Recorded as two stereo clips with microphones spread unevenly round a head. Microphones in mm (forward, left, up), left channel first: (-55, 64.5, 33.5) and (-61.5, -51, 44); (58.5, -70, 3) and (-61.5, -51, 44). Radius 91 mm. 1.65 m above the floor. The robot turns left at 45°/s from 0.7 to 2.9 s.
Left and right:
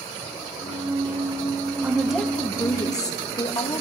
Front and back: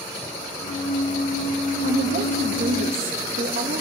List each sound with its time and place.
1.8 s a woman speaking: 170° right, 2.5 m; by 3.8 s 145° left, 2.5 m